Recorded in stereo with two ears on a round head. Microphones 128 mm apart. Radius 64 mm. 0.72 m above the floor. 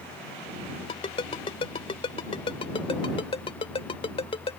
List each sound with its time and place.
0.9 s a ringtone: 40° left (ahead or behind)